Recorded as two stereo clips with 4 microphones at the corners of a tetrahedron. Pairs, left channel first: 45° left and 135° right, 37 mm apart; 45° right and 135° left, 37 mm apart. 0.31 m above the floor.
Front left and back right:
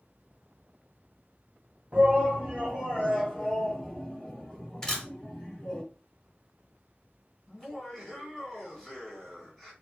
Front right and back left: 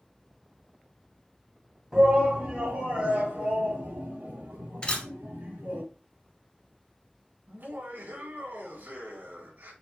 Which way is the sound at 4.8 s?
20° right.